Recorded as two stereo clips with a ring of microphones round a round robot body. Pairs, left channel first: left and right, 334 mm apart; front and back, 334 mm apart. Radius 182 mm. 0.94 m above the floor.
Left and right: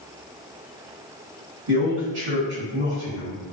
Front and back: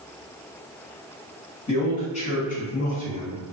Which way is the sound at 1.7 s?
70° right.